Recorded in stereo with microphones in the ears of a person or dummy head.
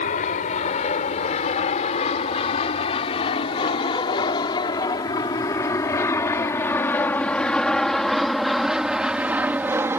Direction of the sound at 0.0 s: 40° left (ahead or behind).